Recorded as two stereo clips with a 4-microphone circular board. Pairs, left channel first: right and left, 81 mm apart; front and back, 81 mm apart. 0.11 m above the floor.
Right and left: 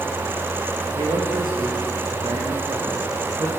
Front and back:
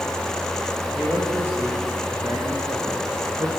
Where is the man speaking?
105° left, 7 m; by 3.5 s 135° left, 7 m.